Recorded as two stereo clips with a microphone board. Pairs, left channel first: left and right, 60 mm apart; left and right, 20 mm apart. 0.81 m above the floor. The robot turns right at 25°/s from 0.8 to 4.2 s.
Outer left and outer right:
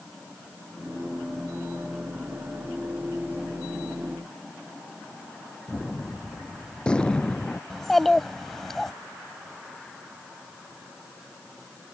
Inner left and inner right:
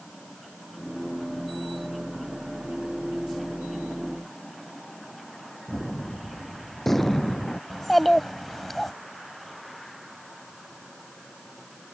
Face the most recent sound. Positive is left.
turn(degrees=5)  # may be behind; listen again after turning